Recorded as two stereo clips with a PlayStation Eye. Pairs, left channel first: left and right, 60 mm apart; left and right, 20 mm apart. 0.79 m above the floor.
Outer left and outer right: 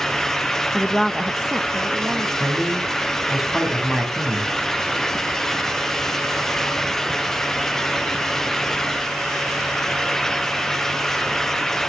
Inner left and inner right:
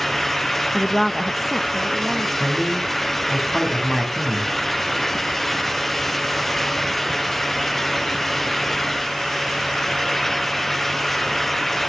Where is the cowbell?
I don't hear a cowbell.